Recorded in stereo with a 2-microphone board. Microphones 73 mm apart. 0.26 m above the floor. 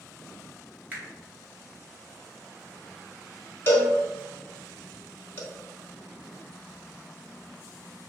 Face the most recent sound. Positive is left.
turn(degrees=30)  # may be behind; listen again after turning